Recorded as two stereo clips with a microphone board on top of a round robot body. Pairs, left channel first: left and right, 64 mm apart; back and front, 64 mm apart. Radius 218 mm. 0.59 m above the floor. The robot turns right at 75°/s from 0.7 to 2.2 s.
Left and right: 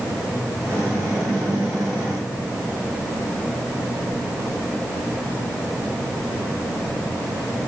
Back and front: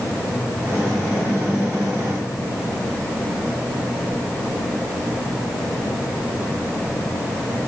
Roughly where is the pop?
No pop in this recording.